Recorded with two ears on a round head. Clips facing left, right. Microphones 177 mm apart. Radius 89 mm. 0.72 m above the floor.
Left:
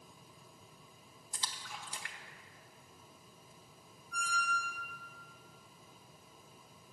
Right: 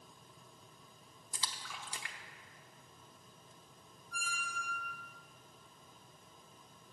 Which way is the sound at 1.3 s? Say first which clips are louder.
Even; 60° right (ahead or behind).